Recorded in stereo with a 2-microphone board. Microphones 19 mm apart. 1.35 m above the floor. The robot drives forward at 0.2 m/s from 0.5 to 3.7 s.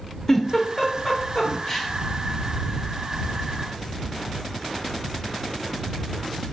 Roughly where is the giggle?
Centre.